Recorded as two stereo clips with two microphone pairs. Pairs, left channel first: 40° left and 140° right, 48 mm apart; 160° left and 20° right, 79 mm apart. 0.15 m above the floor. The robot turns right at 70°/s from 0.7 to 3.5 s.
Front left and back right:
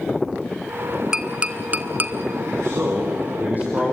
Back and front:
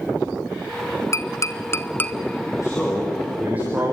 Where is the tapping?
150° left, 0.8 m; by 2.1 s 140° right, 0.8 m.